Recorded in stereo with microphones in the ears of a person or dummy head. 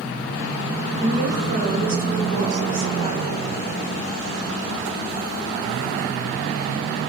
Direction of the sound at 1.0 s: 35° right (ahead or behind).